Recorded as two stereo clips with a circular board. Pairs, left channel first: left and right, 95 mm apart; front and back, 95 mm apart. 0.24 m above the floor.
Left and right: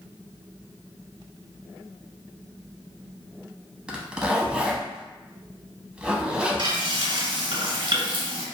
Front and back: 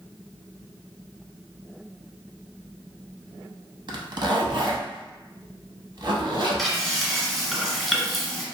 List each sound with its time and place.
3.9 s a zipper: 165° right, 0.5 m
6.6 s frying: 90° right, 0.8 m